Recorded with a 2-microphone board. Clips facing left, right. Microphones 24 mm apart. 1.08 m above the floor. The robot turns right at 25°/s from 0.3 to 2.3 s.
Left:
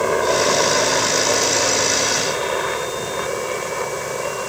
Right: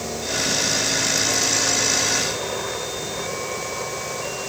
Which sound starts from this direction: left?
A helicopter, at 0.0 s.